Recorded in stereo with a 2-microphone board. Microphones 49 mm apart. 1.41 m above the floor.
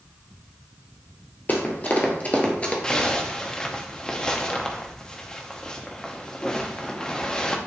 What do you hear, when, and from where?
1.5 s running footsteps: 40° left (ahead or behind), 1.8 m; by 2.7 s 25° left (ahead or behind), 1.5 m
2.8 s a zipper: 15° left (ahead or behind), 0.7 m